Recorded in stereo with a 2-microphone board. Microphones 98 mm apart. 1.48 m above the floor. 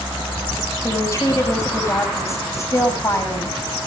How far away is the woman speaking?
About 8 m.